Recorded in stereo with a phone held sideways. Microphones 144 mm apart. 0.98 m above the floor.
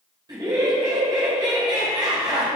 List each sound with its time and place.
0.3 s laughter: 30° right (ahead or behind), 5 m